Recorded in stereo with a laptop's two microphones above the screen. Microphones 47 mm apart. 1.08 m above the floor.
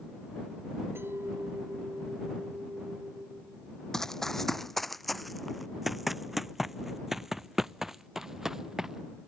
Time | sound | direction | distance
0.9 | a clink | 55° right (ahead or behind) | ?
3.9 | running footsteps | 10° left (ahead or behind) | ?